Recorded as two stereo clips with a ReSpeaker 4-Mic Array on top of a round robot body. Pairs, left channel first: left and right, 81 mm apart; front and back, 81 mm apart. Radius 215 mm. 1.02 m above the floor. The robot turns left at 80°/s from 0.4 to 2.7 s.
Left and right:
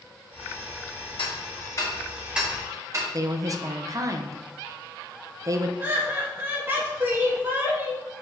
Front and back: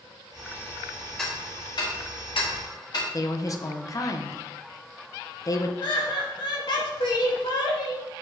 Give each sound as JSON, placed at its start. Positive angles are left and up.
{"t": 1.2, "sound": "ticking", "azimuth_deg": 85, "distance_m": 1.2}
{"t": 3.1, "sound": "a woman speaking", "azimuth_deg": -45, "distance_m": 0.8}
{"t": 5.8, "sound": "laughter", "azimuth_deg": -25, "distance_m": 1.9}